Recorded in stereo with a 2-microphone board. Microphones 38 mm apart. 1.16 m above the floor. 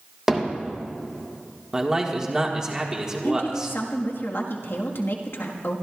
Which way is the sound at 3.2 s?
80° left.